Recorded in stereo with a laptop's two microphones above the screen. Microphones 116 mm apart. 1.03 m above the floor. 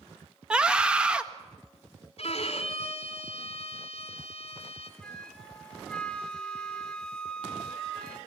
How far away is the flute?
About 1.2 m.